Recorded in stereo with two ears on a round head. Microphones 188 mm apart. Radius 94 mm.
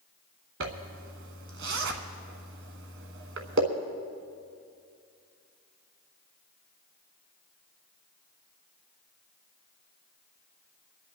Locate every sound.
0.6 s a zipper: 65° right (ahead or behind), 1.2 m